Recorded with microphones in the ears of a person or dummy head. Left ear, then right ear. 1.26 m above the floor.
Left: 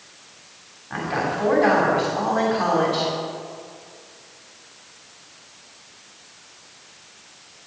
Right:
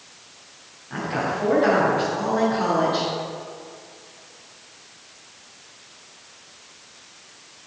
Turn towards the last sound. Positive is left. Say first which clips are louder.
# left 1 dB
turn(degrees=30)  # may be behind; listen again after turning